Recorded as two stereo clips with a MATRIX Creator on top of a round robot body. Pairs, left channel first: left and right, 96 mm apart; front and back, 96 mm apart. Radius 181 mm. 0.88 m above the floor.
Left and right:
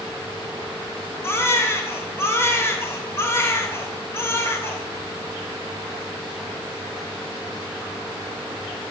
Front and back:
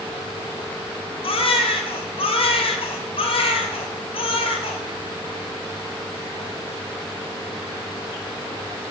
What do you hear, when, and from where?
1.2 s a baby crying: 25° left, 2 m